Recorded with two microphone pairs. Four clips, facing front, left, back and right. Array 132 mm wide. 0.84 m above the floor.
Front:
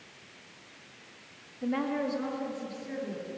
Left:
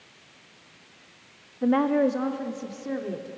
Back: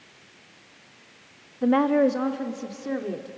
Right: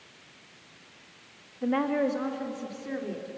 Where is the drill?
I don't hear a drill.